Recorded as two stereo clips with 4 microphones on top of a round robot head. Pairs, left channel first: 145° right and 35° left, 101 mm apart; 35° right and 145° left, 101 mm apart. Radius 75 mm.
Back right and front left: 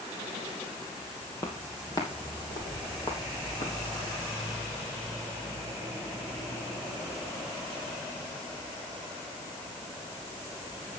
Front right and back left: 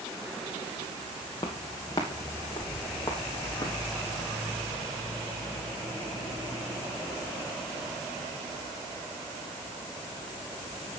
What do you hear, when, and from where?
1.4 s footsteps: 85° right, 2.5 m; by 3.8 s 100° right, 4 m